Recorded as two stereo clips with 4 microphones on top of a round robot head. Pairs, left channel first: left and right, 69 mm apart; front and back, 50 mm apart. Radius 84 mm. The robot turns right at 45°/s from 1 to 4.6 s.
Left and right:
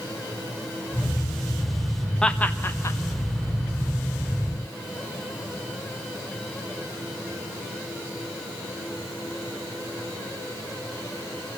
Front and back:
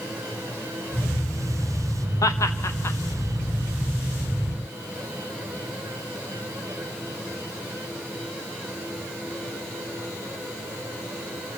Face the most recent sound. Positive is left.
turn(degrees=120)